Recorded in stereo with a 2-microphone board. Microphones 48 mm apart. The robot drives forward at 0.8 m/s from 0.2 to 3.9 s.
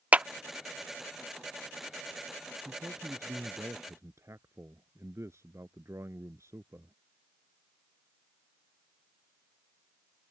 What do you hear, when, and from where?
0.1 s a clap: 30° right (ahead or behind)
2.6 s a man speaking: 70° right (ahead or behind); by 7.0 s 80° right